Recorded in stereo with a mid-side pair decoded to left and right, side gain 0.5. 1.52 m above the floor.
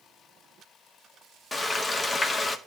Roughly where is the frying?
Ahead left.